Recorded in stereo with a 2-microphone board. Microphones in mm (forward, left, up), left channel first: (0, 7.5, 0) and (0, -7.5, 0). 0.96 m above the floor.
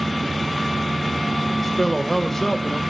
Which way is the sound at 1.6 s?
5° left (ahead or behind).